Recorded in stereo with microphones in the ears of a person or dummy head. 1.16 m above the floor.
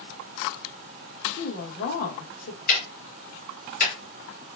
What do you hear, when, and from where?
1.4 s a woman speaking: 50° left (ahead or behind), 1.1 m
2.7 s ticking: 40° left (ahead or behind), 0.8 m